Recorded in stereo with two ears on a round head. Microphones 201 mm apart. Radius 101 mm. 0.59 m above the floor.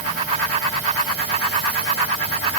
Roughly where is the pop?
I don't hear a pop.